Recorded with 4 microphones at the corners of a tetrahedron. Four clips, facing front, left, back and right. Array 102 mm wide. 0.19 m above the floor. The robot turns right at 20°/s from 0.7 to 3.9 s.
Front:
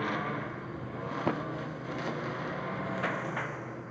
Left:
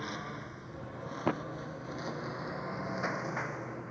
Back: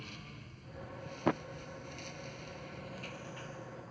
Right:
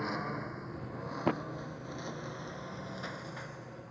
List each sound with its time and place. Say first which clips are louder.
0.0 s a lawn mower: right 4 dB, front 18 dB; 20° right; by 3.9 s 45° left